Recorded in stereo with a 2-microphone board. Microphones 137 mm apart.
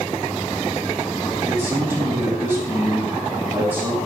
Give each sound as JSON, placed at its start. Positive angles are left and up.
{"t": 1.5, "sound": "a man speaking", "side_deg": -15, "distance_m": 4.5}